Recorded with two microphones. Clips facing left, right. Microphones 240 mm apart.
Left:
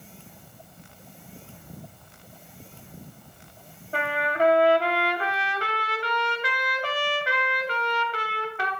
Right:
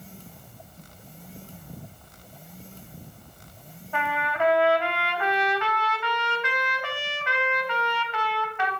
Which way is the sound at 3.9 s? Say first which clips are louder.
Left 3 dB; 35° left (ahead or behind).